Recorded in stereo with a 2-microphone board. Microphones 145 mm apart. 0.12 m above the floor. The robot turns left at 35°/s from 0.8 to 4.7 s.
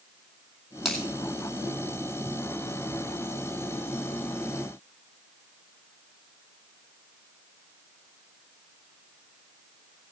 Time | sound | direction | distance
0.8 | a finger snap | centre (ahead or behind) | 2.5 m